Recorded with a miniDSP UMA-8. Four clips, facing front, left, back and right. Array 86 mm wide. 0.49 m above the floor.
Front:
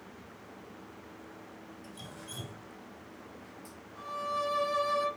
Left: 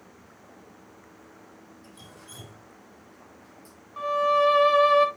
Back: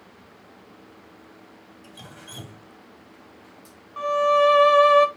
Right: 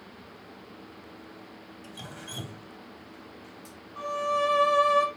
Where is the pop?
I don't hear a pop.